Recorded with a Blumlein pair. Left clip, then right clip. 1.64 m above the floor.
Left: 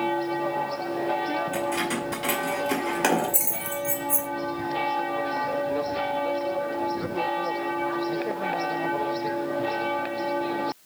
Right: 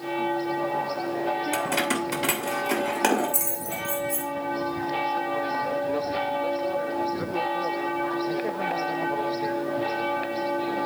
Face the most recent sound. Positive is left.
turn(degrees=20)